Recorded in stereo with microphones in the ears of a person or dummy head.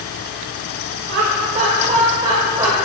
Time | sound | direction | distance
1.1 | laughter | 60° right (ahead or behind) | 0.9 m